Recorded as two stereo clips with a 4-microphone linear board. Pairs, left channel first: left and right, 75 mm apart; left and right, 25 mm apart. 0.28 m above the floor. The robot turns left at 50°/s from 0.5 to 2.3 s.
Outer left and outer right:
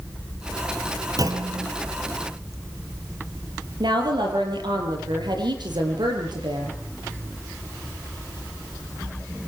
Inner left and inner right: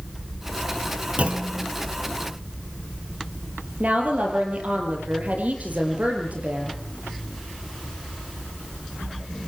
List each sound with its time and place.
1.2 s a clunk: 50° right (ahead or behind), 2.5 m; by 1.7 s 70° right (ahead or behind), 2.5 m
3.8 s a woman speaking: 80° right, 7 m